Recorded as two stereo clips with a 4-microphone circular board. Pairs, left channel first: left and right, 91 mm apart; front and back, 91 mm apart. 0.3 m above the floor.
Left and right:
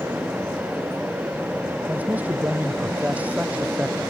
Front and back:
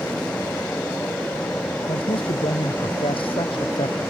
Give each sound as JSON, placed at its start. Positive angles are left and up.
{"t": 1.9, "sound": "a man speaking", "azimuth_deg": -15}